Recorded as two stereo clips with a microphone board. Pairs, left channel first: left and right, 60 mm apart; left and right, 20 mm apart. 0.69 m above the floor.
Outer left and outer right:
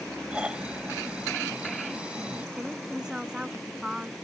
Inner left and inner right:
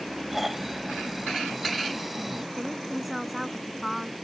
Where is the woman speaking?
10° right (ahead or behind).